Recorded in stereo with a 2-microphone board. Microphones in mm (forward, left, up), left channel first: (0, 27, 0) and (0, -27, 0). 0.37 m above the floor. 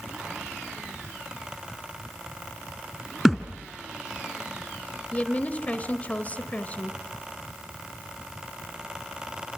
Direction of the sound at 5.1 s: 25° left (ahead or behind).